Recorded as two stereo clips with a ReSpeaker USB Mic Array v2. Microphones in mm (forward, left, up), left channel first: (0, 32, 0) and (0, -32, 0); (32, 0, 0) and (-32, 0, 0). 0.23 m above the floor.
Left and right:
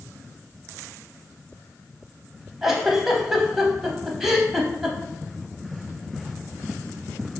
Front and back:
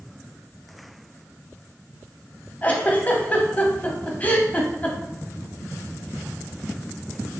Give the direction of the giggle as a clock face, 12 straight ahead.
1 o'clock.